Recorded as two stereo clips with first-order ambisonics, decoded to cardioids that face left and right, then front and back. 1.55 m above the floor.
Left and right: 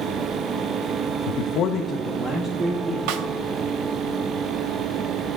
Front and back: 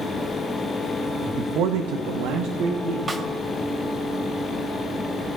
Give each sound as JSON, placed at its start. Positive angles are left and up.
{"t": 1.3, "sound": "a man speaking", "azimuth_deg": 105, "distance_m": 0.7}
{"t": 3.1, "sound": "a snare drum", "azimuth_deg": -105, "distance_m": 1.0}